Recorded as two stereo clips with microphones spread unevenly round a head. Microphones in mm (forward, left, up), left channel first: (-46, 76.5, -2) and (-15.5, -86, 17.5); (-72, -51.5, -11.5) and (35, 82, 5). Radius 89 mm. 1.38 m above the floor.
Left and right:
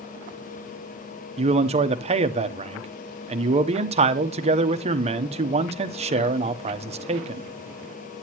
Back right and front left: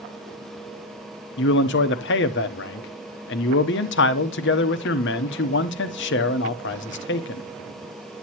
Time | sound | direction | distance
1.4 | a man speaking | 135° right | 0.8 m